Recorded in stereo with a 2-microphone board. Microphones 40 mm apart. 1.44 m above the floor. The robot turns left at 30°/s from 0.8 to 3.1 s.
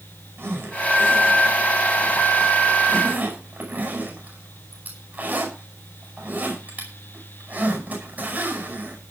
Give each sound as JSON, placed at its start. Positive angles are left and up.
{"t": 0.4, "sound": "a zipper", "side_deg": -65, "distance_m": 9.5}